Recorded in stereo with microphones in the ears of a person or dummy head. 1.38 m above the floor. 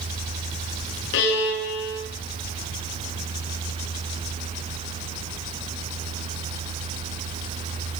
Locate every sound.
1.1 s a violin: 60° left (ahead or behind), 10 m